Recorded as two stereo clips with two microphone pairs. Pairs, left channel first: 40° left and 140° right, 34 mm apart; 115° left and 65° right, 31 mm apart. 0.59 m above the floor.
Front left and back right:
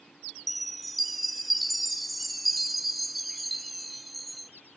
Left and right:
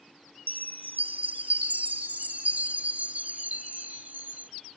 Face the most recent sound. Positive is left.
turn(degrees=-50)